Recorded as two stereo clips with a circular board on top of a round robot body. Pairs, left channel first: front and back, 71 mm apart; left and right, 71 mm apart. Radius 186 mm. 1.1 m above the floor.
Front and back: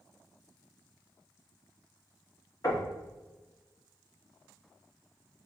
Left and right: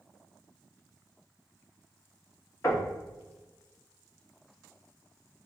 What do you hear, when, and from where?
2.6 s knocking: 40° left, 1.7 m